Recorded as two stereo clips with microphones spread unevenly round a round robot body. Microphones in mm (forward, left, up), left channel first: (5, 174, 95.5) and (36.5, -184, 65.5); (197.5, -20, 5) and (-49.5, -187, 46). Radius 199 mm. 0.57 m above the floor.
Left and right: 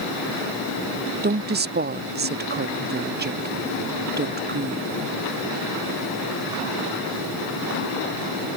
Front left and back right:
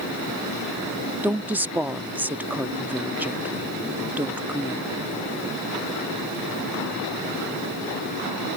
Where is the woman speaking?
55° right.